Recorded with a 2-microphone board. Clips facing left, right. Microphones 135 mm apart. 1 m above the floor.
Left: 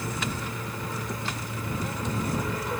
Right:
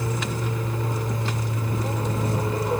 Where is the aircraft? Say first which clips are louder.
Right 4 dB; 30° right (ahead or behind).